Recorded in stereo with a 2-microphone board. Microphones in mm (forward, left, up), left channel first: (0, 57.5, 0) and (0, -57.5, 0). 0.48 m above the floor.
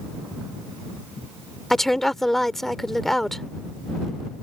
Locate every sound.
1.7 s a woman speaking: centre (ahead or behind)